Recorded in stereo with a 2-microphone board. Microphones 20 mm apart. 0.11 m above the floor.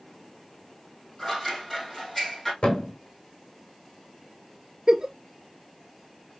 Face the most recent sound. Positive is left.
turn(degrees=-35)  # may be behind; listen again after turning